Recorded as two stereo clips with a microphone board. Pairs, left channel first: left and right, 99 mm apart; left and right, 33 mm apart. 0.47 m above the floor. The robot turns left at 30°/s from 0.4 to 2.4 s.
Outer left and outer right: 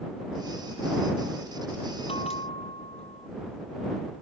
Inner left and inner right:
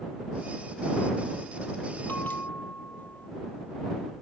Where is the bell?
75° left (ahead or behind); by 3.3 s 85° left.